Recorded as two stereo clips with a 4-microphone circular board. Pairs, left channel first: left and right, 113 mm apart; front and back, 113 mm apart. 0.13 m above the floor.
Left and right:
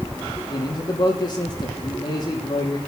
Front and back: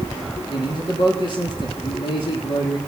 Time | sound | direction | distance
0.5 | a man speaking | 40° left | 3.5 m